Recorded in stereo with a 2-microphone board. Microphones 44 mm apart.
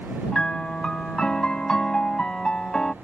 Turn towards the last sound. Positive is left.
turn(degrees=20)  # may be behind; listen again after turning